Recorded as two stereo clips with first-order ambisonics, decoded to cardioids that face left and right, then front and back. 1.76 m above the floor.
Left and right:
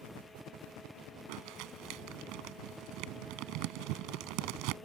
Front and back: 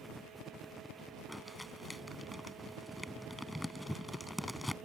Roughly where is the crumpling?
Right.